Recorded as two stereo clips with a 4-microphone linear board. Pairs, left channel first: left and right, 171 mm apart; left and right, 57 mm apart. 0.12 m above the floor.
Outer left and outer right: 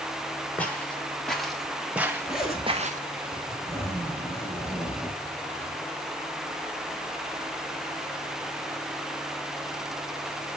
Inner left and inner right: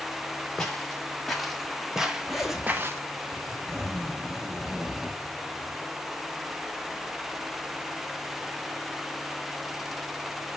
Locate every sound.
0.6 s footsteps: 10° left (ahead or behind), 2.5 m; by 3.0 s 55° right (ahead or behind), 0.7 m
2.3 s a zipper: 5° right (ahead or behind), 2 m